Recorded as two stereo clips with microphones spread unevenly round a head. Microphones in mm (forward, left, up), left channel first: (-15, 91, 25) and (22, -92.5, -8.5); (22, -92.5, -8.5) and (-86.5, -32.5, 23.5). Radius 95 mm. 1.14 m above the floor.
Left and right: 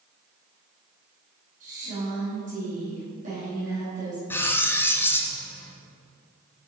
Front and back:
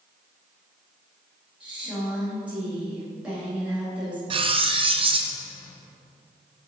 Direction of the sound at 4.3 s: 175° left.